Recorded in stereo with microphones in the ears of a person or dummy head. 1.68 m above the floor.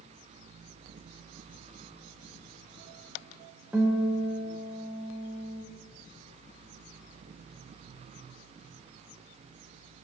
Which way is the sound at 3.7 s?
Centre (ahead or behind).